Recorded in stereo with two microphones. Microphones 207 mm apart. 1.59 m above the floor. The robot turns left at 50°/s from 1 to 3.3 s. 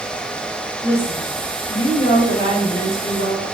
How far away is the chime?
No chime in this recording.